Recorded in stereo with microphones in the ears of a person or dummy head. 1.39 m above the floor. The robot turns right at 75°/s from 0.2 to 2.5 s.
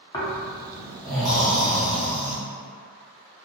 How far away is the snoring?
About 0.8 m.